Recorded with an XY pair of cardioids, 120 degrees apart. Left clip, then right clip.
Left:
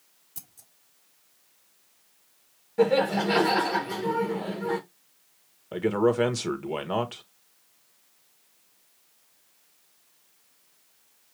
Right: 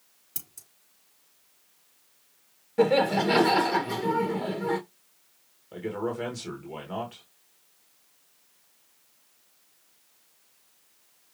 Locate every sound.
0.3 s scissors: 65° right, 3.5 m
2.8 s laughter: 15° right, 1.2 m
5.7 s a man speaking: 55° left, 1.6 m